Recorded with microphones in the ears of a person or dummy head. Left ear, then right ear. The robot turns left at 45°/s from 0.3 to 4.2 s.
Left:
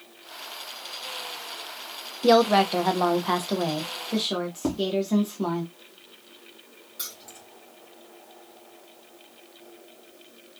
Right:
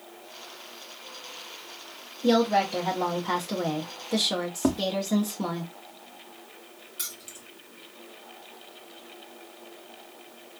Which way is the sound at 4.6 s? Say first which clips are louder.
Right 2 dB; 25° right (ahead or behind).